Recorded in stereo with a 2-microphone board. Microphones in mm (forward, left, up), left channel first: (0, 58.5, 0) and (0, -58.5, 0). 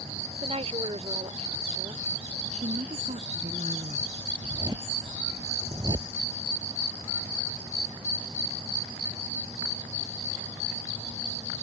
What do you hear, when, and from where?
0.4 s a woman speaking: 55° right (ahead or behind)
2.5 s a woman speaking: 70° right (ahead or behind)
4.4 s a zipper: 35° right (ahead or behind)